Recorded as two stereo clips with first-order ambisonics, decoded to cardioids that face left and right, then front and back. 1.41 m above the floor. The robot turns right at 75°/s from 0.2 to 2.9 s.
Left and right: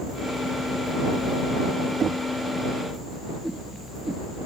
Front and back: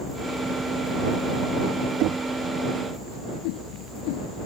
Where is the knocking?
155° right; by 2.2 s 140° right.